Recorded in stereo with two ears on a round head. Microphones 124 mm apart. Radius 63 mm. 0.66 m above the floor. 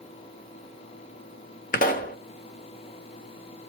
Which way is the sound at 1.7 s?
65° left (ahead or behind).